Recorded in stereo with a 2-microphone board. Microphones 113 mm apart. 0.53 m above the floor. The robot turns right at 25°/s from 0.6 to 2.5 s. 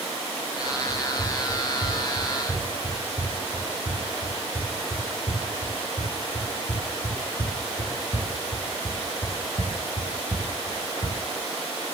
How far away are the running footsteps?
About 7.5 m.